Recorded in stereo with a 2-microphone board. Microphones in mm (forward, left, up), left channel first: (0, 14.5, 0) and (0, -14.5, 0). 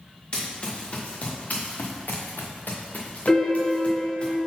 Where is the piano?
35° left (ahead or behind), 1.4 m.